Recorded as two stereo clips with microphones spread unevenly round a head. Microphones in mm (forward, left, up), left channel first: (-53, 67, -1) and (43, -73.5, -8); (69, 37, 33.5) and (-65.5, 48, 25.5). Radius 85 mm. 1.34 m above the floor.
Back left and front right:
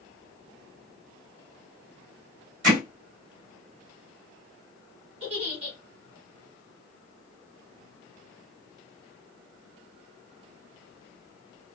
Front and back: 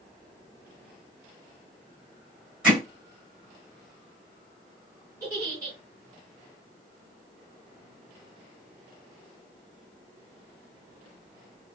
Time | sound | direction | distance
2.6 | hammering | 100° right | 3 m
5.2 | a giggle | 115° right | 3 m